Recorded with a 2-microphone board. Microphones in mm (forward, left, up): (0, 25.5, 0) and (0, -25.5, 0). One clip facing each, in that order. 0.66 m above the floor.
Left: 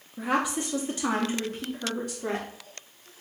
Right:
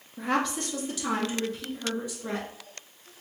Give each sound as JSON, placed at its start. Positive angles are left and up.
{"t": 0.2, "sound": "a woman speaking", "side_deg": 5, "distance_m": 0.7}